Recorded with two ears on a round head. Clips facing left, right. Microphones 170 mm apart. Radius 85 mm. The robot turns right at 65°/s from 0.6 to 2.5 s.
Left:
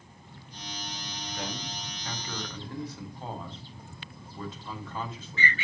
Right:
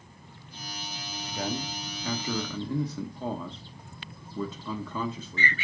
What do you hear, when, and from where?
1.3 s a man speaking: 25° right (ahead or behind), 1.5 m; by 5.5 s 80° right, 1.5 m